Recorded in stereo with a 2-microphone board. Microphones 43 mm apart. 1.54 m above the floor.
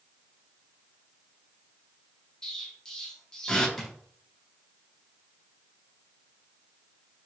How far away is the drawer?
About 0.8 m.